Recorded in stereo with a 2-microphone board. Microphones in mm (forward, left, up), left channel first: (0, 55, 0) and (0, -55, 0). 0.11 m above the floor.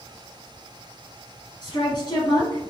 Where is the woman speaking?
40° left (ahead or behind), 1.4 m.